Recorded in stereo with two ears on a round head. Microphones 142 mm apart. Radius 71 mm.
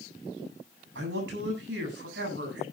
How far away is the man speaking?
About 7.5 m.